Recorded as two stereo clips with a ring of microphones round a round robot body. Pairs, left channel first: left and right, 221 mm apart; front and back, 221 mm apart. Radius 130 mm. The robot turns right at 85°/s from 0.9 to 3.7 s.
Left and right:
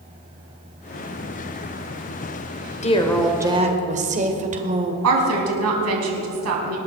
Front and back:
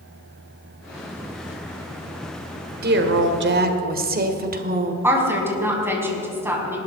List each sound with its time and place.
2.8 s a woman speaking: 145° left, 1.7 m; by 4.9 s 140° right, 1.7 m
5.0 s a woman speaking: 100° right, 4.5 m